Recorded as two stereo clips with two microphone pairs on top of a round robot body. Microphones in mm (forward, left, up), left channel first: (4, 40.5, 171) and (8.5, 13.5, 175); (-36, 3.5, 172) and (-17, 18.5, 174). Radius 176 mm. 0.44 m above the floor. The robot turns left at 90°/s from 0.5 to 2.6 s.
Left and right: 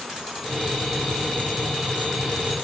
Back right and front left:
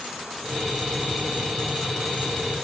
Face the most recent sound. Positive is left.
No sound to turn to.